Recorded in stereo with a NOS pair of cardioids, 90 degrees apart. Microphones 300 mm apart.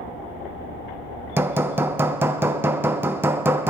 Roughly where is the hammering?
Ahead.